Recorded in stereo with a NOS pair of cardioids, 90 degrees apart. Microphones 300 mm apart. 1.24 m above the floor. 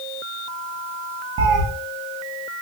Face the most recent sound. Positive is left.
turn(degrees=-50)